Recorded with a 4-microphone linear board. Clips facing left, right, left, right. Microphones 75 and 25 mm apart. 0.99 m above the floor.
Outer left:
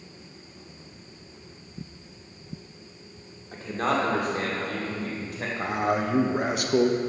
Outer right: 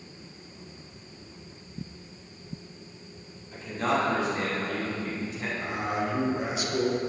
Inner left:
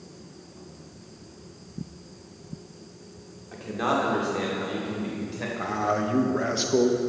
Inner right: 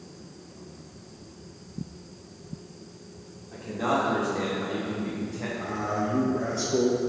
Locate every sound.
3.5 s a man speaking: 50° left (ahead or behind), 2 m; by 5.5 s 60° left (ahead or behind), 3.5 m
5.6 s a man speaking: 55° left (ahead or behind), 0.9 m